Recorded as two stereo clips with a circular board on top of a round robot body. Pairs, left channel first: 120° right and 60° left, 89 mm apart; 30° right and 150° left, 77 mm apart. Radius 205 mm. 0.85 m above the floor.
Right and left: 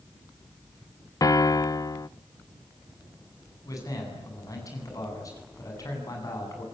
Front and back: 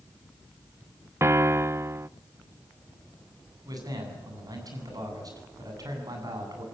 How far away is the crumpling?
I don't hear crumpling.